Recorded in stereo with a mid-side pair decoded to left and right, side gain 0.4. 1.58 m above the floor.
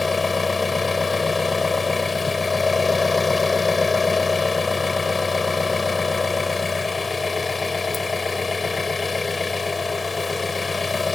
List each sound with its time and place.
0.0 s an engine running: 30° left